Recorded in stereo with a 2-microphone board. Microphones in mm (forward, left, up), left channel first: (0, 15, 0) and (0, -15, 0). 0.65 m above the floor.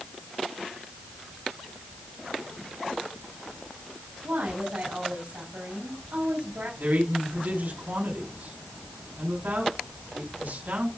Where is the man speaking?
75° right (ahead or behind), 6 m.